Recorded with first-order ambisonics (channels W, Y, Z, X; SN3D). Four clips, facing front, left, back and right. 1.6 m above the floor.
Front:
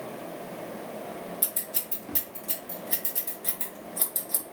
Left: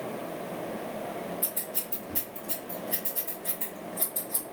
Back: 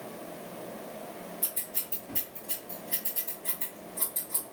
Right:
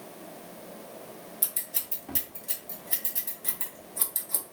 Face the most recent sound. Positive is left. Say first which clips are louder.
# left 2 dB, front 3 dB
turn(degrees=-40)